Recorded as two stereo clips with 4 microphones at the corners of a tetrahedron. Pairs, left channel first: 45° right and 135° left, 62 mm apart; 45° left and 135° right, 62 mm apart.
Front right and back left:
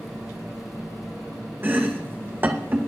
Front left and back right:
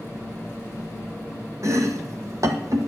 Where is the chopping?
170° right, 1.5 m.